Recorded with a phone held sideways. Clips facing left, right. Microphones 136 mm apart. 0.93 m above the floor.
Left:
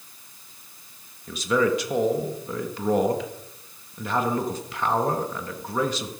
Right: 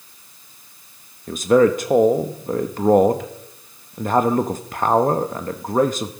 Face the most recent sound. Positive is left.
turn(degrees=-50)  # may be behind; listen again after turning